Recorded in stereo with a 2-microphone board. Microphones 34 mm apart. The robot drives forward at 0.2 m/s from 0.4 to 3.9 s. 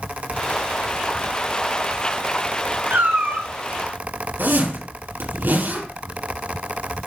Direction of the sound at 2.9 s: 75° right (ahead or behind).